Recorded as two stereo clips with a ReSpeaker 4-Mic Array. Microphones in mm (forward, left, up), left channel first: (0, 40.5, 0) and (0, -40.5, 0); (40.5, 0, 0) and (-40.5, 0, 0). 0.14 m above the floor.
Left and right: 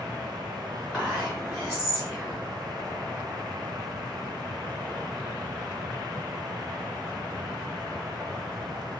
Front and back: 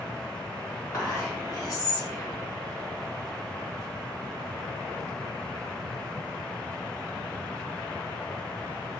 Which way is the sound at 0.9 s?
25° left.